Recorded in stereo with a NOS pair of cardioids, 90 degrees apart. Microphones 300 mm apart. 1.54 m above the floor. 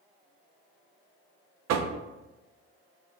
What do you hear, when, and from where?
1.7 s knocking: 65° right, 0.5 m